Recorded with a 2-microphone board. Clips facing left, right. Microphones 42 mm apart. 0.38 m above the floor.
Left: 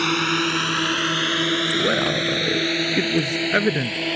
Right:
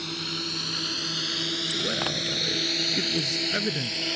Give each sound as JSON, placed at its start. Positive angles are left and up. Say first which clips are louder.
{"t": 0.0, "sound": "a drone", "louder": "left 13 dB", "side_deg": 55}
{"t": 1.7, "sound": "a man speaking", "louder": "left 8 dB", "side_deg": 40}